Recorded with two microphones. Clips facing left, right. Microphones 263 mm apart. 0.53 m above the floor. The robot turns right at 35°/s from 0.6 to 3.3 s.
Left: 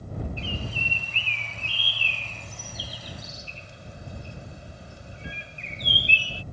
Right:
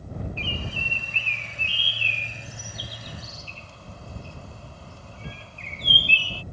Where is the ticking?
I don't hear ticking.